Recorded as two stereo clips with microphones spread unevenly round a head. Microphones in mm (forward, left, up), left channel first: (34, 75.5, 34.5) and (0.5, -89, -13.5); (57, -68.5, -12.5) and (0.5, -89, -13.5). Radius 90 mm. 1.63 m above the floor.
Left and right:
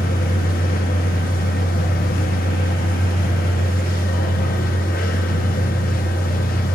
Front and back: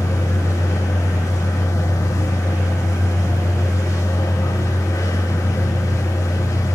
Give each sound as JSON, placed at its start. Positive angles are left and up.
{"t": 0.0, "sound": "a machine running", "azimuth_deg": 55, "distance_m": 2.0}